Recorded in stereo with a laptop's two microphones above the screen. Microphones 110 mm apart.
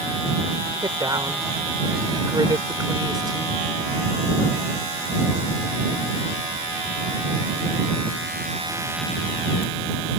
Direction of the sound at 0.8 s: 40° right (ahead or behind).